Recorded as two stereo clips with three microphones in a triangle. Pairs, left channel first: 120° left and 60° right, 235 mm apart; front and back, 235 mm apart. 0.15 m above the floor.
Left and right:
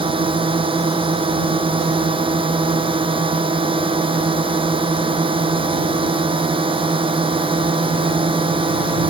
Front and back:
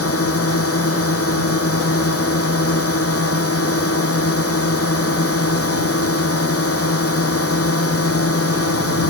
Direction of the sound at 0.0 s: 10° left.